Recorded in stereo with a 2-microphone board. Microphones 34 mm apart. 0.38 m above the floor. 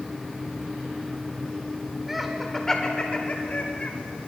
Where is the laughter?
10° right (ahead or behind), 0.8 m; by 3.9 s 45° left (ahead or behind), 1.1 m.